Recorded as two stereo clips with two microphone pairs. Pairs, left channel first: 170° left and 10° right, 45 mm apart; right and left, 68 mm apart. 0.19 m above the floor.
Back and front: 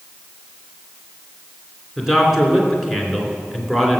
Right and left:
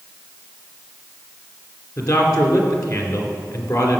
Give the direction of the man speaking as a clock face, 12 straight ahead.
3 o'clock.